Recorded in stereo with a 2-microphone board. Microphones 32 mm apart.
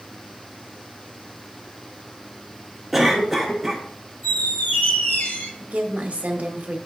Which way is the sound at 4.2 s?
65° left (ahead or behind).